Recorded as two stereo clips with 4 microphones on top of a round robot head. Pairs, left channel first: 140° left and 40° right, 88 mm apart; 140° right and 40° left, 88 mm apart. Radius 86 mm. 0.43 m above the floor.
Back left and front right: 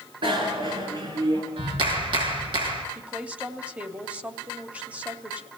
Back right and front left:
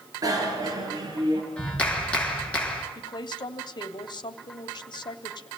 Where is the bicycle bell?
10° right, 6 m; by 1.4 s 5° right, 7.5 m.